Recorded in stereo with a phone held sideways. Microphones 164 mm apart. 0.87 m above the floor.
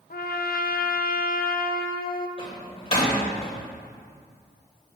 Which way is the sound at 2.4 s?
35° left (ahead or behind).